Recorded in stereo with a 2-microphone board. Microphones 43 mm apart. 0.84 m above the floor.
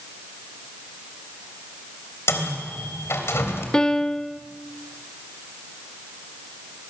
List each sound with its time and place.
2.3 s a microwave: 80° left, 3 m
3.7 s a piano: 15° left (ahead or behind), 0.6 m